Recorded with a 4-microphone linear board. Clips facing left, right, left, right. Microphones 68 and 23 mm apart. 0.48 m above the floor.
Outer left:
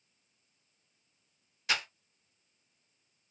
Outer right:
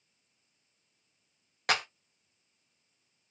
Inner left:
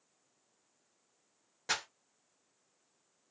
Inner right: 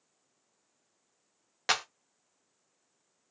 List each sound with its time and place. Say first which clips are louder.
1.7 s a clap: outer right 4 dB, inner right 6 dB; 60° right (ahead or behind), 1.1 m